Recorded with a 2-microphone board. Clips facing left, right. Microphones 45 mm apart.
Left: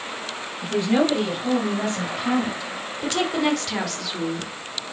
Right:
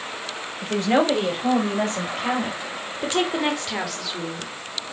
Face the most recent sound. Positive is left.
turn(degrees=5)  # may be behind; listen again after turning